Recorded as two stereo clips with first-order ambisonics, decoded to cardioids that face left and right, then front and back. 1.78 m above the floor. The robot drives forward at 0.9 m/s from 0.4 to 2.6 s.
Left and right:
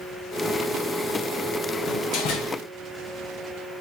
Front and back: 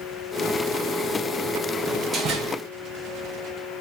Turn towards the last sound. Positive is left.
turn(degrees=140)